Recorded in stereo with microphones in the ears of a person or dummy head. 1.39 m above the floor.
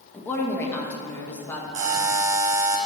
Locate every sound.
0.1 s a woman speaking: 10° left (ahead or behind), 1.5 m
1.7 s a buzzer: 40° right (ahead or behind), 1.2 m